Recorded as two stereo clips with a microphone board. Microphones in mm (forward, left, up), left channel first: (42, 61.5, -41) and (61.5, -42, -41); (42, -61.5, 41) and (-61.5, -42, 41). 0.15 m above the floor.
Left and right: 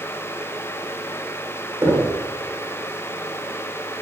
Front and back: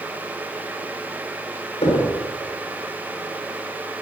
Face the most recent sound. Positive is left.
turn(degrees=-15)